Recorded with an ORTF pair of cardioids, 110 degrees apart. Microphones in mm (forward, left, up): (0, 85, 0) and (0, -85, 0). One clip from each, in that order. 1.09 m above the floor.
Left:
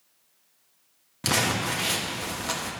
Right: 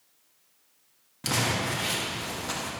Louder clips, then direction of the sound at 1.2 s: Left 2 dB; 25° left.